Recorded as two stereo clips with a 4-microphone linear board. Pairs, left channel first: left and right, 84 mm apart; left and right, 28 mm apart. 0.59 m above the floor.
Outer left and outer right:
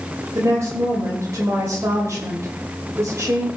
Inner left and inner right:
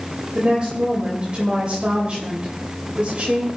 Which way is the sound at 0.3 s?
35° right (ahead or behind).